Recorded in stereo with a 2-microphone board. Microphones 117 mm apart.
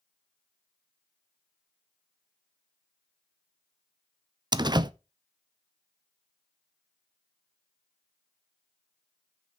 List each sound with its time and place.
4.5 s a door slam: 35° right (ahead or behind), 0.5 m